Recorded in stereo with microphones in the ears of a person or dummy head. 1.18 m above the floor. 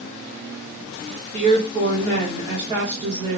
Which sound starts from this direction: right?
A woman speaking, at 1.3 s.